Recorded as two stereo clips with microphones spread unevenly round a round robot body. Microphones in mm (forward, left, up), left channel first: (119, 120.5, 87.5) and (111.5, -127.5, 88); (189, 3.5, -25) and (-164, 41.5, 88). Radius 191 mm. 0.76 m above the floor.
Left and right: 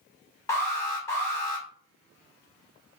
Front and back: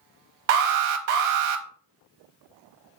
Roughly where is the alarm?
Behind.